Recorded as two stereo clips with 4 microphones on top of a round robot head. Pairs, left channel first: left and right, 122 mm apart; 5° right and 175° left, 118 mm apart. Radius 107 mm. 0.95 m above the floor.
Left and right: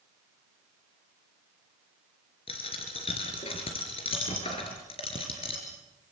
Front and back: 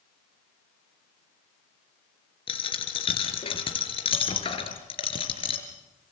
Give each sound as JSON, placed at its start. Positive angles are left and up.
{"t": 2.5, "sound": "a dropped coin", "azimuth_deg": 35, "distance_m": 4.0}